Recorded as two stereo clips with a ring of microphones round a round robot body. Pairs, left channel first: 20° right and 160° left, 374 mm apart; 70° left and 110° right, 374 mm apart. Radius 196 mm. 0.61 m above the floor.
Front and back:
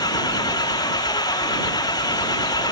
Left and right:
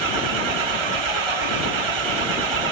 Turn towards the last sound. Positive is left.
turn(degrees=-100)